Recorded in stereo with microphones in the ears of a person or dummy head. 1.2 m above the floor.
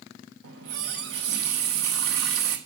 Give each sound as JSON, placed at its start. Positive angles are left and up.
{"t": 0.4, "sound": "a running tap", "side_deg": -60, "distance_m": 1.2}